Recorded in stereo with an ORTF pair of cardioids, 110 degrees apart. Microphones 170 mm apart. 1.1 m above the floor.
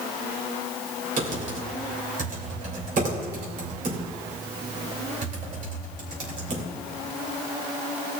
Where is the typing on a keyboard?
50° right, 3 m.